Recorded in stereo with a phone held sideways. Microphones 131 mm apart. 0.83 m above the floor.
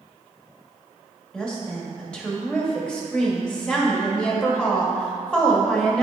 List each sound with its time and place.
1.3 s a woman speaking: 5° left (ahead or behind), 1.5 m